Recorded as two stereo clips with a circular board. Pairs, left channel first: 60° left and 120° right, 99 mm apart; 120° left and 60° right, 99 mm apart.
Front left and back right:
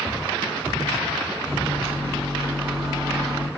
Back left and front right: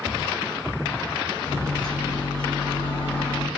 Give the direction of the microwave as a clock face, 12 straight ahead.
7 o'clock.